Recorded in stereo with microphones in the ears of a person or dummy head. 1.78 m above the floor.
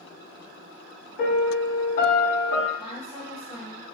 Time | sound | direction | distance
1.2 | a piano | 45° left (ahead or behind) | 1.9 m
2.8 | a woman speaking | 20° left (ahead or behind) | 1.9 m